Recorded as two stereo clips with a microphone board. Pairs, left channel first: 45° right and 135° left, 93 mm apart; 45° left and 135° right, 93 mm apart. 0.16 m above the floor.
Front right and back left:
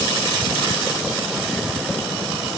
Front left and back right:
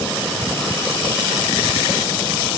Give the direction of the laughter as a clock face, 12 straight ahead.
I don't hear laughter.